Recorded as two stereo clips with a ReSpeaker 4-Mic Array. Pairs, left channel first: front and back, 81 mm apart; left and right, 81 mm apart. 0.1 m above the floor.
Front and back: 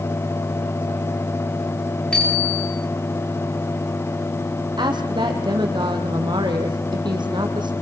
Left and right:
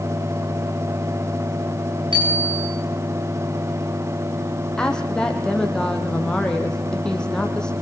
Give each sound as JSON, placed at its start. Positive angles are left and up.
{"t": 2.1, "sound": "a bicycle bell", "azimuth_deg": -80, "distance_m": 8.0}
{"t": 4.8, "sound": "a woman speaking", "azimuth_deg": 170, "distance_m": 3.5}